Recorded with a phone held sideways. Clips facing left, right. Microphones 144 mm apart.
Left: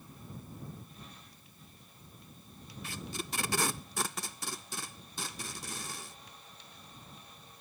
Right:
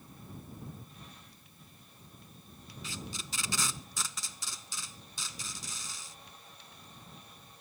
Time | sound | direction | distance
2.8 | tape being pulled | 55° left (ahead or behind) | ?